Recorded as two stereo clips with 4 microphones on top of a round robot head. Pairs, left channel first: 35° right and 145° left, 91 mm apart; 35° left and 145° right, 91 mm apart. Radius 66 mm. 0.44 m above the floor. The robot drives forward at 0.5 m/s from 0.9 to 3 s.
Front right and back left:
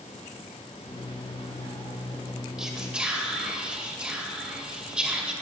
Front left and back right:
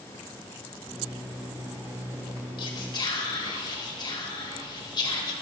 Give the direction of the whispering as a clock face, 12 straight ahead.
10 o'clock.